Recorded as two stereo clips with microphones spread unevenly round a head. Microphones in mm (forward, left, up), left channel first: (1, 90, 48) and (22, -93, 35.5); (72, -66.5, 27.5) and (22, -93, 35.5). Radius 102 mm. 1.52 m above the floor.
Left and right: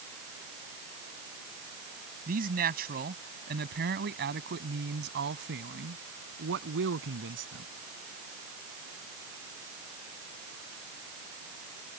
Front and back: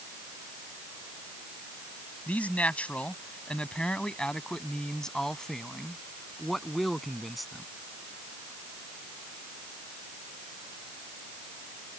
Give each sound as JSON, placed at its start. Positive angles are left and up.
{"t": 2.3, "sound": "a man speaking", "azimuth_deg": -40}